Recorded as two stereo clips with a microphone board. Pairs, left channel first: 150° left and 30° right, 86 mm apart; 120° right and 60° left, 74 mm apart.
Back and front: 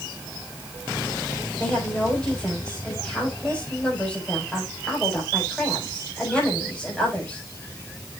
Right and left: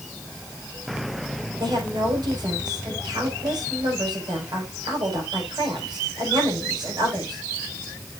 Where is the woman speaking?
70° left, 6.5 m.